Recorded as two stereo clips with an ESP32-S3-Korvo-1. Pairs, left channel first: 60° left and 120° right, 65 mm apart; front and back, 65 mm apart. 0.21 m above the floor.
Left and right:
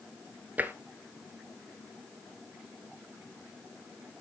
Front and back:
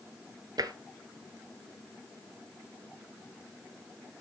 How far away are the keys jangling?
No keys jangling in this recording.